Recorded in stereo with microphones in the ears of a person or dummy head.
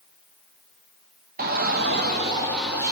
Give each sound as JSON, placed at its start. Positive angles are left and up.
{"t": 1.4, "sound": "a shout", "side_deg": -35, "distance_m": 0.6}